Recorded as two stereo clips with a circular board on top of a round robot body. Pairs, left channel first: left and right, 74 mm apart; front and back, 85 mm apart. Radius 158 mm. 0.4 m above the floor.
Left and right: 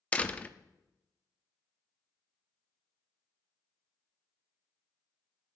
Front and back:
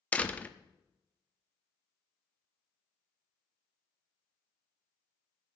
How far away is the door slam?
About 1.0 m.